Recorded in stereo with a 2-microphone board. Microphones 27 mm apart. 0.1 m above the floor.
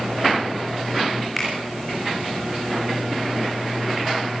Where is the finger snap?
Centre (ahead or behind), 8 m.